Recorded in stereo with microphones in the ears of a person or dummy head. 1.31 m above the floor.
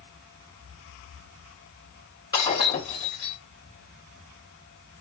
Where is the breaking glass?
25° left (ahead or behind), 3.5 m.